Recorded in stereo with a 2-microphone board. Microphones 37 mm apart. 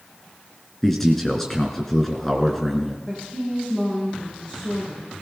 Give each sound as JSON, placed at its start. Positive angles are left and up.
{"t": 0.8, "sound": "a man speaking", "side_deg": 5, "distance_m": 1.8}
{"t": 3.1, "sound": "a woman speaking", "side_deg": 25, "distance_m": 6.0}